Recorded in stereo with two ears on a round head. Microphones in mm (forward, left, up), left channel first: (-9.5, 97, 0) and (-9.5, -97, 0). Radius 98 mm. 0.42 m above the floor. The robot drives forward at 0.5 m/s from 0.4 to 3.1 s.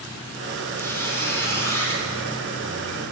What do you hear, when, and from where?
0.8 s a squeak: 10° left (ahead or behind), 4.5 m